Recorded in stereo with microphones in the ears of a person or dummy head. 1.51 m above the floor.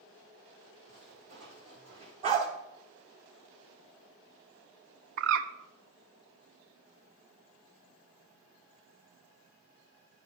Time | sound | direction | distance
0.9 | footsteps | 60° right (ahead or behind) | 4 m
2.2 | a dog barking | 35° right (ahead or behind) | 1.8 m
5.2 | a bird | 70° right (ahead or behind) | 0.6 m